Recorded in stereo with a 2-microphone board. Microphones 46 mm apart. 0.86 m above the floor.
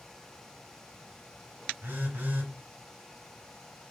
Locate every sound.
1.8 s a phone buzzing: 50° right (ahead or behind), 2 m